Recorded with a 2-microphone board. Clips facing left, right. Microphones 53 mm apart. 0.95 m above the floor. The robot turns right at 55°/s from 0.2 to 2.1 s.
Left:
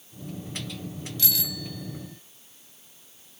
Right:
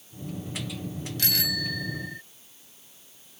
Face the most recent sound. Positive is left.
turn(degrees=-80)